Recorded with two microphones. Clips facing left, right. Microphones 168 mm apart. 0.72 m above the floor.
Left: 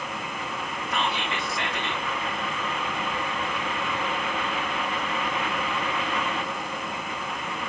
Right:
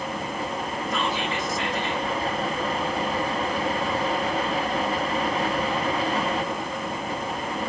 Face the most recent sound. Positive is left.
turn(degrees=65)  # may be behind; listen again after turning